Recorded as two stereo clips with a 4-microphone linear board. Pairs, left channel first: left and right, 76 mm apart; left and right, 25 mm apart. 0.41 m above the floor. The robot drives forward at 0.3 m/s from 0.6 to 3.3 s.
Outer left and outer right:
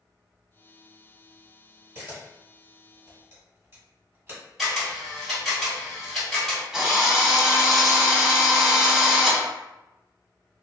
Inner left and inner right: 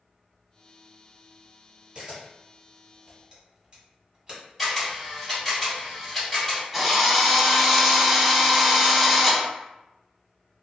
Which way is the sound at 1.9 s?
35° right (ahead or behind).